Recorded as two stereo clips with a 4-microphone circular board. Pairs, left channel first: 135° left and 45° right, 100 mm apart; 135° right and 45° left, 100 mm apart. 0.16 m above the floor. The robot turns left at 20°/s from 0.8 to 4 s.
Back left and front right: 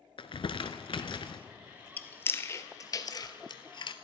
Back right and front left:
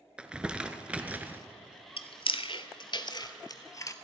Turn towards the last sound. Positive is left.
turn(degrees=165)